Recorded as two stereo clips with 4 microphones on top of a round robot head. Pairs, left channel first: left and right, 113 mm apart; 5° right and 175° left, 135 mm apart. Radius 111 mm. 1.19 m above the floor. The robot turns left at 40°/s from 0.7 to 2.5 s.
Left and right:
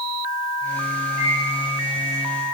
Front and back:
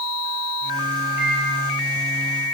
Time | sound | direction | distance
1.2 | a microwave | 100° left | 3 m